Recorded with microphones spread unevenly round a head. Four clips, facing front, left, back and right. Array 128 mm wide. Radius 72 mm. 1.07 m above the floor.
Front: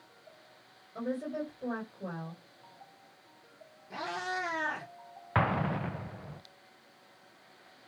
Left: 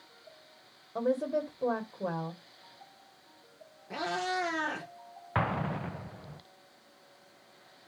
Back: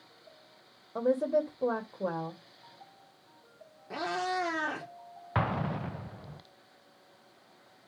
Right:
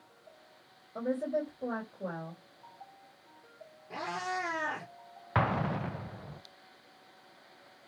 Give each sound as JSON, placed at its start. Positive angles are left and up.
{"t": 0.9, "sound": "a woman speaking", "azimuth_deg": 160, "distance_m": 3.5}
{"t": 3.9, "sound": "a cat meowing", "azimuth_deg": 165, "distance_m": 4.5}
{"t": 5.3, "sound": "an explosion", "azimuth_deg": 0, "distance_m": 0.5}